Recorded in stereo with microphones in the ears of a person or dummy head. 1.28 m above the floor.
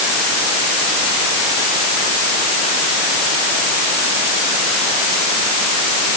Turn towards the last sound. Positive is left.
No sound to turn to.